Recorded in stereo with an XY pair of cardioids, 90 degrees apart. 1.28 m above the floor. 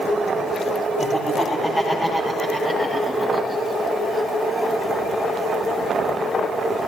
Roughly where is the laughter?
Ahead left.